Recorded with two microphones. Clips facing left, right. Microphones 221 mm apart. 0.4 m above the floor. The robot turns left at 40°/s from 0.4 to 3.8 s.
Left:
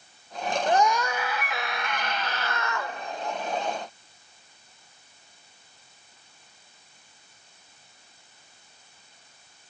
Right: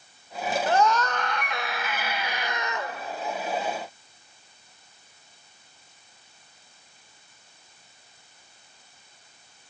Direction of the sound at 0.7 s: 15° left (ahead or behind).